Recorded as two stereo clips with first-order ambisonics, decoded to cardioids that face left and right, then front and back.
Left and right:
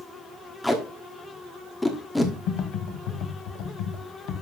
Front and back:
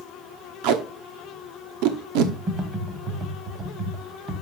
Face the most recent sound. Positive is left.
turn(degrees=115)